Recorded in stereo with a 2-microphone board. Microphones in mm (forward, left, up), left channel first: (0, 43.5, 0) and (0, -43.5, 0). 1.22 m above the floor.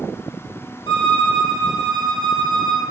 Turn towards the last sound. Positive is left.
turn(degrees=65)  # may be behind; listen again after turning